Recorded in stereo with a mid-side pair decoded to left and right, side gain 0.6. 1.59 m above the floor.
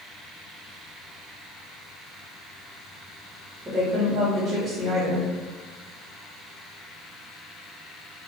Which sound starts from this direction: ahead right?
A woman speaking, at 3.6 s.